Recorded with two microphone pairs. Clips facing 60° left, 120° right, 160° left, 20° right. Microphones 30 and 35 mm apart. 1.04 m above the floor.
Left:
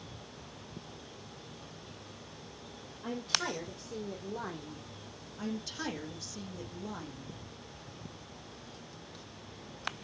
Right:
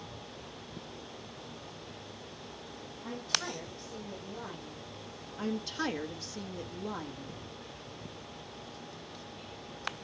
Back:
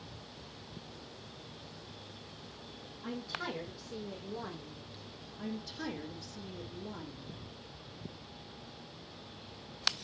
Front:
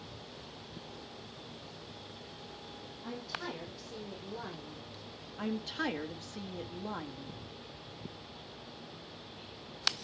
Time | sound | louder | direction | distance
3.0 | a woman speaking | left 1 dB, back 2 dB | 95° left | 3.5 m
5.4 | a woman speaking | right 4 dB, front 5 dB | 45° right | 1.6 m